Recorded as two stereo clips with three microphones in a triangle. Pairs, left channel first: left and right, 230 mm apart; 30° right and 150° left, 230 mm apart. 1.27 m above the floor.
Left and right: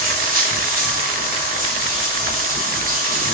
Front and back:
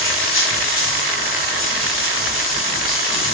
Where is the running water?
40° right, 1.3 m.